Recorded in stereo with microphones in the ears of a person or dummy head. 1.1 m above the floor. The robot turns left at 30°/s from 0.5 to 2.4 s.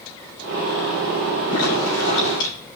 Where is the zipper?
85° left, 3.5 m; by 2.5 s 70° left (ahead or behind), 3.5 m.